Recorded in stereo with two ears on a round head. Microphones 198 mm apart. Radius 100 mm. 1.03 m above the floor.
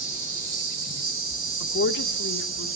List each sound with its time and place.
0.0 s an insect: 45° right (ahead or behind), 7.5 m
1.6 s a woman speaking: 55° left (ahead or behind), 3 m